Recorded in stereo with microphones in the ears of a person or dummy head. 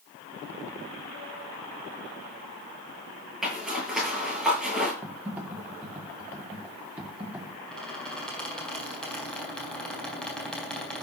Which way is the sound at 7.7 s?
5° left (ahead or behind).